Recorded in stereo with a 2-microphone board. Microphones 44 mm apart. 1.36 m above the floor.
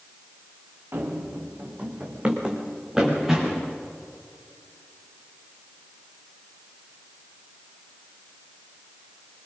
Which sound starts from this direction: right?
Running footsteps, at 0.9 s.